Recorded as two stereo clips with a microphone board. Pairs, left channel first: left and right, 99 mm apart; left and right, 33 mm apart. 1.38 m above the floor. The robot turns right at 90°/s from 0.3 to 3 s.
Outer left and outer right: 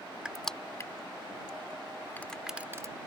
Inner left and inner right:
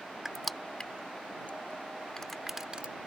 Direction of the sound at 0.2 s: 10° right (ahead or behind).